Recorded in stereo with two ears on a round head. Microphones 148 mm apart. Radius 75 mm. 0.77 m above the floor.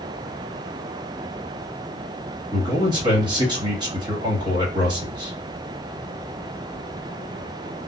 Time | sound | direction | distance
2.5 | a man speaking | 30° right (ahead or behind) | 1.4 m